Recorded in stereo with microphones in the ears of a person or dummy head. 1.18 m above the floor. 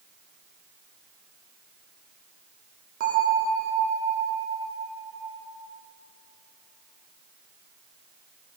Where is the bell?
45° right (ahead or behind), 1.4 m.